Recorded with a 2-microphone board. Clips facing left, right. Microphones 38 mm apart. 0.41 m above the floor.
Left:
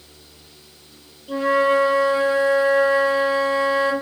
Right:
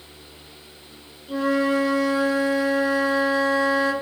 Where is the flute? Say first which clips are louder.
Left 4 dB; 50° left (ahead or behind), 0.8 m.